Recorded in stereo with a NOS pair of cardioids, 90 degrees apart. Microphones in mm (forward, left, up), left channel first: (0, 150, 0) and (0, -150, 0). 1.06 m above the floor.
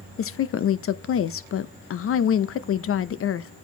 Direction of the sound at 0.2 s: 50° left.